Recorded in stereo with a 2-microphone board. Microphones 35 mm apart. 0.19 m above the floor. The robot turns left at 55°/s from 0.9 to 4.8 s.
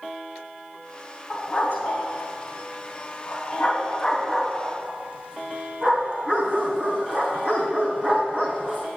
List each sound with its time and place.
1.3 s a dog barking: 20° left (ahead or behind), 3.5 m; by 8.8 s 35° right (ahead or behind), 3.5 m